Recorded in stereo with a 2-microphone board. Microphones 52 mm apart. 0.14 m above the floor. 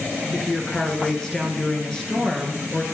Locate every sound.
0.3 s a woman speaking: 15° left (ahead or behind), 1.9 m